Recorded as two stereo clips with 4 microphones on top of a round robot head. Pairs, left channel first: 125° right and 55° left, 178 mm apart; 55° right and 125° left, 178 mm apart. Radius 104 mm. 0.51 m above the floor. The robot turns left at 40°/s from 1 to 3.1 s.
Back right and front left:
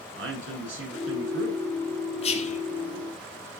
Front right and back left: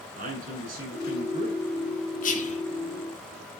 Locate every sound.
0.2 s a man speaking: 80° left, 9 m; by 1.6 s 55° left, 9 m
2.2 s whispering: 80° right, 1.6 m; by 2.6 s 95° right, 1.6 m